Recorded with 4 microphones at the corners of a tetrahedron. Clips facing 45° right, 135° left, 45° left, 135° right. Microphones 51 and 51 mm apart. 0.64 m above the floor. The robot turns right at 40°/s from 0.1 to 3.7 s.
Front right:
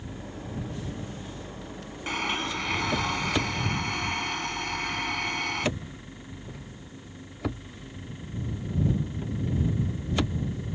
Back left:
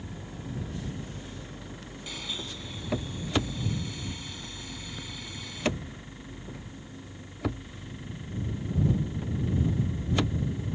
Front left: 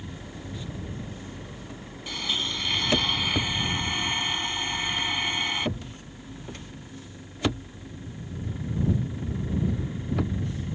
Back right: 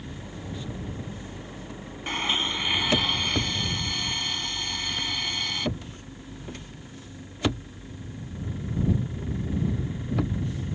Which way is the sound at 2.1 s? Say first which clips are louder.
Front right 10 dB, back right 3 dB; 85° right.